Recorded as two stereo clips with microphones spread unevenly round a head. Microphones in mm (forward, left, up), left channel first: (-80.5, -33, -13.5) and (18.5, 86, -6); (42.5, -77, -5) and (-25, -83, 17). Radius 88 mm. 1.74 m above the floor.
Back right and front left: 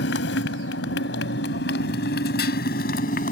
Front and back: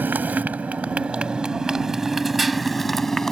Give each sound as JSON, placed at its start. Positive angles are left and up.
{"t": 0.0, "sound": "a motorcycle", "azimuth_deg": -120}